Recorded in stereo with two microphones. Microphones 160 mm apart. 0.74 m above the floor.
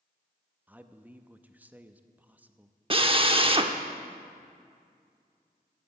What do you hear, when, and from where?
0.7 s a man speaking: 10° right (ahead or behind), 0.6 m
2.9 s a drill: 35° right (ahead or behind), 0.7 m